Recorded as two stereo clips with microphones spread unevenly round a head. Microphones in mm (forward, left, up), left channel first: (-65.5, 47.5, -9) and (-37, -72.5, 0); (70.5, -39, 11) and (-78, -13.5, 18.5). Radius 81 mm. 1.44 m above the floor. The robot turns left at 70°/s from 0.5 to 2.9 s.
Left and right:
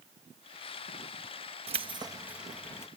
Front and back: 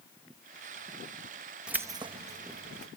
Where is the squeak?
I don't hear a squeak.